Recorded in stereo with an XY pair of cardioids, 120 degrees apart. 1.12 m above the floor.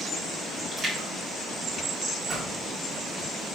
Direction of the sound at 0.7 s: 35° right.